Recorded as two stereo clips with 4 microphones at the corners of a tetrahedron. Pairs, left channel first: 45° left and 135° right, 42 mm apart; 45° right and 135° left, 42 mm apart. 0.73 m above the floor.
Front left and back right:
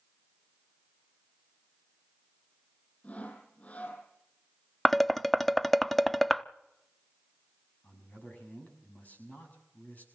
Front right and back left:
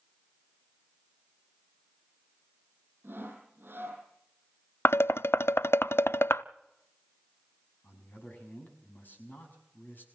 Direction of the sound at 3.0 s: 105° left.